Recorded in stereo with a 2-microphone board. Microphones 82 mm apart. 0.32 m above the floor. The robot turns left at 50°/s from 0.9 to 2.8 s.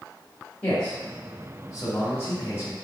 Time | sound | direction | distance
0.6 | a man speaking | 15° left (ahead or behind) | 1.2 m